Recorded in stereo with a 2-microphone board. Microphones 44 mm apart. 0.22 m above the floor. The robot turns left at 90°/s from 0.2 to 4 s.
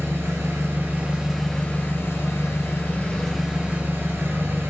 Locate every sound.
0.0 s an engine running: 70° right, 0.9 m; by 4.7 s 55° right, 0.9 m